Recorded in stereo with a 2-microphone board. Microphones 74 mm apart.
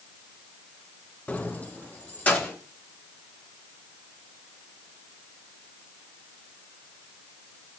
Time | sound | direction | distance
1.3 | keys jangling | 20° left (ahead or behind) | 0.5 m